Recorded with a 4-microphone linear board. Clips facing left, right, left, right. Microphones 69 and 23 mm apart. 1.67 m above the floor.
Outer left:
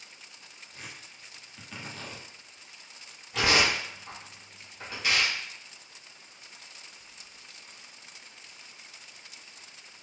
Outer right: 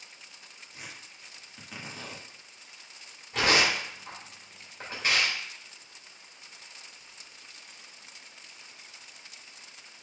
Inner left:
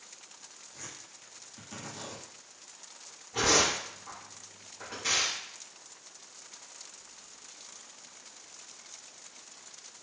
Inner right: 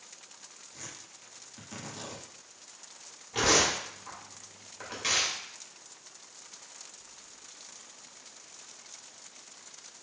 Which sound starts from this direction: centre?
Tearing paper, at 0.7 s.